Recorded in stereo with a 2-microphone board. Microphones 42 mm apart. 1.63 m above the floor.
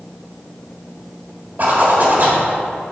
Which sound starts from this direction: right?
A zipper, at 1.6 s.